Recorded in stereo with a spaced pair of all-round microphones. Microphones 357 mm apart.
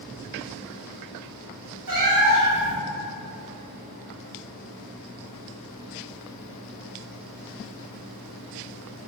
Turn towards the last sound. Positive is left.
turn(degrees=-55)  # may be behind; listen again after turning